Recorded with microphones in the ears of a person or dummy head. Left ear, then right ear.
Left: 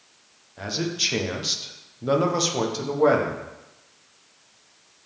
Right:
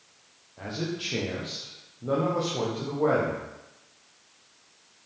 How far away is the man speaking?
About 1.3 m.